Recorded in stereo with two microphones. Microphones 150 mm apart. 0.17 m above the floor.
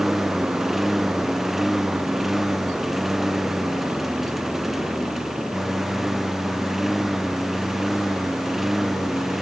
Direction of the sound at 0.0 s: Centre (ahead or behind).